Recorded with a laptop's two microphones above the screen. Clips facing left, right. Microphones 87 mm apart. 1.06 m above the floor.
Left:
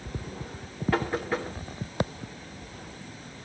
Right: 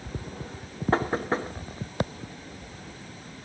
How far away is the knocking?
About 1.1 m.